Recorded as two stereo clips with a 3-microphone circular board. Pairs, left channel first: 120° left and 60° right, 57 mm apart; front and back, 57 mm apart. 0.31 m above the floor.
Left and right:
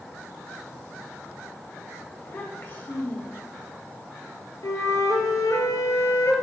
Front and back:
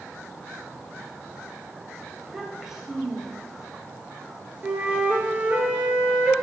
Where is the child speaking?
105° left, 0.7 m.